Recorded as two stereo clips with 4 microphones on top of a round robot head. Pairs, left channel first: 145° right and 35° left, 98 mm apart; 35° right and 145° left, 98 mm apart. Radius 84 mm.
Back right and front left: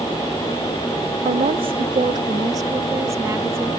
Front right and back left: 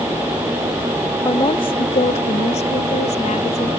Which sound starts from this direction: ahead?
A woman speaking, at 1.2 s.